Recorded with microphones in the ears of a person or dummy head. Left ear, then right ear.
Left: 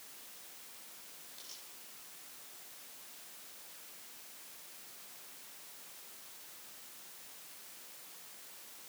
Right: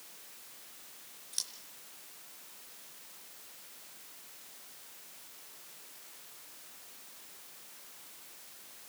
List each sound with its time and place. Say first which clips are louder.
1.3 s scissors: right 17 dB; 70° right (ahead or behind), 5 m